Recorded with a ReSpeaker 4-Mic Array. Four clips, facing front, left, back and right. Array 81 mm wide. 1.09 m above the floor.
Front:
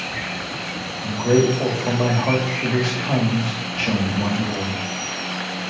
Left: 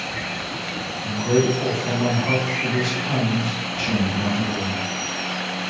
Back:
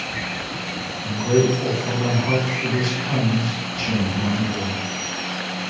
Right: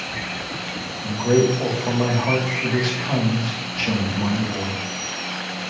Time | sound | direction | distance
1.0 | a man speaking | 20° right | 1.7 m